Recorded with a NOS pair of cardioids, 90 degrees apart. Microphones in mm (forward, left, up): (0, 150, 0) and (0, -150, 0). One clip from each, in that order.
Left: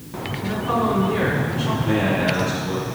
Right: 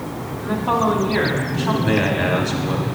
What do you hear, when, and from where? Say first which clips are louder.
0.4 s a woman speaking: right 3 dB; 70° right, 2.5 m
1.8 s a man speaking: even; 65° right, 2.5 m